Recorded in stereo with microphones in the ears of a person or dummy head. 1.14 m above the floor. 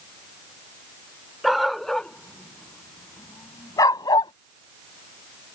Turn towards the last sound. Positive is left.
turn(degrees=25)  # may be behind; listen again after turning